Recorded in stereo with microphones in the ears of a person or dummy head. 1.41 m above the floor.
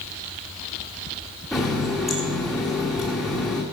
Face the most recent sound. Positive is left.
turn(degrees=0)  # may be behind; listen again after turning